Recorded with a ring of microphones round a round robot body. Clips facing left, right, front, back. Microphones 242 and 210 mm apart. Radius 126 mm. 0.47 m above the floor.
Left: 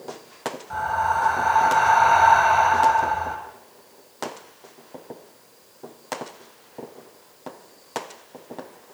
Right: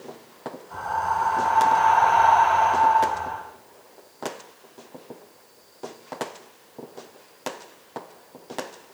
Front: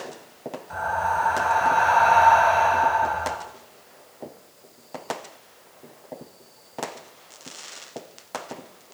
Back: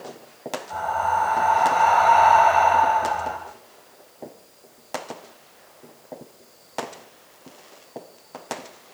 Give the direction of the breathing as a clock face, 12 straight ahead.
9 o'clock.